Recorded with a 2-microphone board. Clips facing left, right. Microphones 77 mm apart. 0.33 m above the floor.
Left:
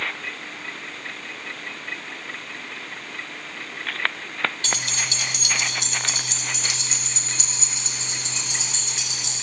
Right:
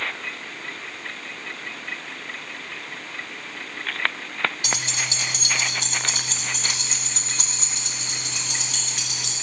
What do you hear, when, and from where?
4.6 s keys jangling: 15° right (ahead or behind), 0.8 m; by 9.3 s 55° right (ahead or behind), 3.5 m